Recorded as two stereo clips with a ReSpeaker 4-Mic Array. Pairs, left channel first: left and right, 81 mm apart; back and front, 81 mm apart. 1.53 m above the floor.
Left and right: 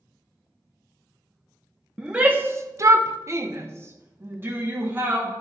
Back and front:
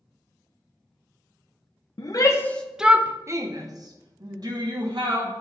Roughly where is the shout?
Behind.